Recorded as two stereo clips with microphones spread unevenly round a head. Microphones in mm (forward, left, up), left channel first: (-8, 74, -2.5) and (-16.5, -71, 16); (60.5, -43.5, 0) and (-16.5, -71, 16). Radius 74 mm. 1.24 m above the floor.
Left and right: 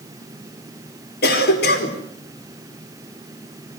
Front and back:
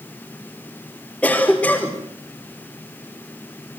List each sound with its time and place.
1.2 s a cough: 100° left, 4.5 m